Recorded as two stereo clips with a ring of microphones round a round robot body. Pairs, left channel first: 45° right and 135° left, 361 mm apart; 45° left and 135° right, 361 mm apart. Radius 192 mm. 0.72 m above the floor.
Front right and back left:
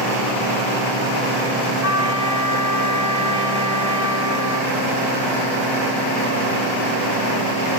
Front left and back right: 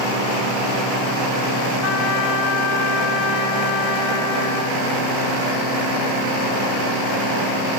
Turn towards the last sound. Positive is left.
turn(degrees=55)